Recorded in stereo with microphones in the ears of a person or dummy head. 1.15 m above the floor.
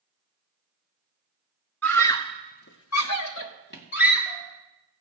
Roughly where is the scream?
Centre.